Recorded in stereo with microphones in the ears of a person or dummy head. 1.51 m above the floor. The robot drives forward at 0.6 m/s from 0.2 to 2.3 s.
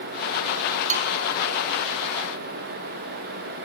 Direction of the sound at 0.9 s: 40° right (ahead or behind).